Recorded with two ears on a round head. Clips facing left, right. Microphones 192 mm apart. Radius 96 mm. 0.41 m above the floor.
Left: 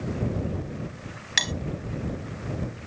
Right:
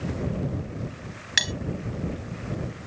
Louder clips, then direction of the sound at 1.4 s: Left 1 dB; 10° right (ahead or behind).